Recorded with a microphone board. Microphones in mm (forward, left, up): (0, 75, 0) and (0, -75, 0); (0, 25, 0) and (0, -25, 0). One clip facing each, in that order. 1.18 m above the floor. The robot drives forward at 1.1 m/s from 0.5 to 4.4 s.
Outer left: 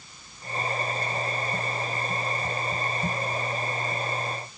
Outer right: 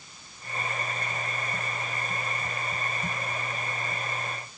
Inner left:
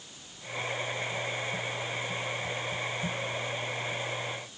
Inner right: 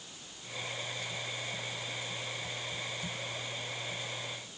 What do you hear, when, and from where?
Only background noise.